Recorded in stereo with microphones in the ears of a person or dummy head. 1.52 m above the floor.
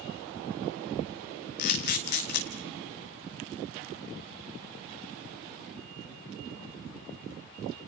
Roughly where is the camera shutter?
Left.